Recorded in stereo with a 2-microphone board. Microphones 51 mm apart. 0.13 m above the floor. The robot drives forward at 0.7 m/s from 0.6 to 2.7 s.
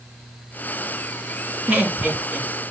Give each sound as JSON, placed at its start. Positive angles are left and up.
{"t": 1.7, "sound": "laughter", "side_deg": -25, "distance_m": 2.0}